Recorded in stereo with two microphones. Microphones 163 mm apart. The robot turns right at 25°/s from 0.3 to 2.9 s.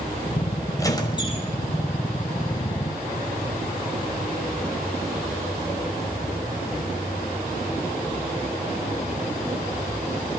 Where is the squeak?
20° left (ahead or behind), 5 m; by 1.5 s 35° left (ahead or behind), 5 m.